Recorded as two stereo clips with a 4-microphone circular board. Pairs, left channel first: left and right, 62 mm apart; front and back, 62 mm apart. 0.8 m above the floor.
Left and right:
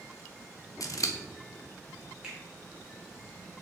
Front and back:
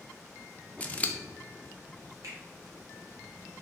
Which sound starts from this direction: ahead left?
Scissors, at 0.8 s.